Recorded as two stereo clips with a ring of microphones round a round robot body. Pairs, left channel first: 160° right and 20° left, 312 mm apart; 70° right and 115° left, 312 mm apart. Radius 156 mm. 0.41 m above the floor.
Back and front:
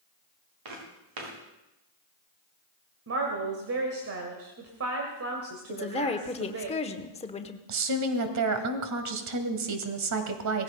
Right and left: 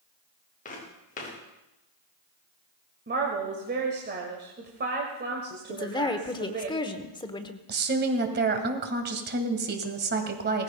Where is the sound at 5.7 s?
120° right, 1.0 m.